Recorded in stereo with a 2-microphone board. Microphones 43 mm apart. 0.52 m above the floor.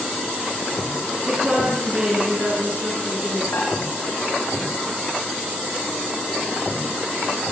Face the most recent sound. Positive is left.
turn(degrees=60)  # may be behind; listen again after turning